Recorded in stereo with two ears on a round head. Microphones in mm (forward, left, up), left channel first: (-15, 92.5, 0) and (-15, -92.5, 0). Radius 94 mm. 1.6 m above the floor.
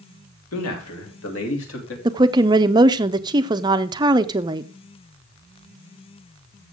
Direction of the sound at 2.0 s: 20° right (ahead or behind).